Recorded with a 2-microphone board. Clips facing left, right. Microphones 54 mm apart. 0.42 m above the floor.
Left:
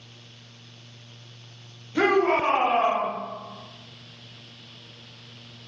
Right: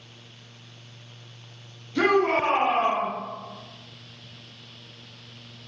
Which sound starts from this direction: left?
A shout, at 1.9 s.